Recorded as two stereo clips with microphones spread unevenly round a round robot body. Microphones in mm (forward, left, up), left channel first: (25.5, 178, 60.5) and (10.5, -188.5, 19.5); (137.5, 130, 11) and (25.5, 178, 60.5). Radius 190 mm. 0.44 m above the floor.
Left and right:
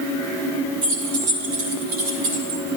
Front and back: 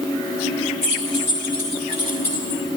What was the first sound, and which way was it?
Keys jangling, 35° right.